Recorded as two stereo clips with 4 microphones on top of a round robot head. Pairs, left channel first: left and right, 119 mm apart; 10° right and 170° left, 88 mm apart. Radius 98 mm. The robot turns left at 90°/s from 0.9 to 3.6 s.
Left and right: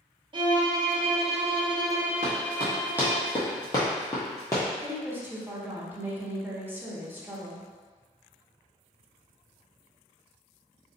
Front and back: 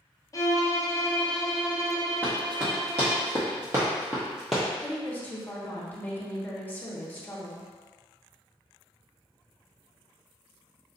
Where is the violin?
50° right, 0.6 m; by 3.2 s 100° left, 0.6 m.